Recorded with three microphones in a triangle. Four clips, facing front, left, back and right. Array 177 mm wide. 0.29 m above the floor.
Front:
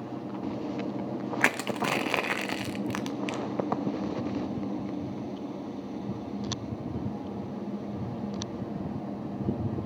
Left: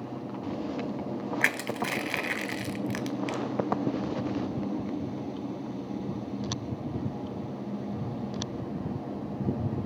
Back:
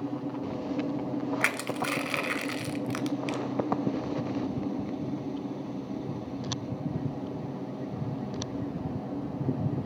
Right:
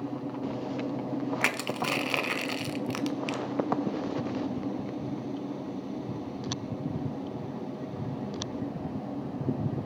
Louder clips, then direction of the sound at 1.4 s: Even, front 2 dB; 15° right.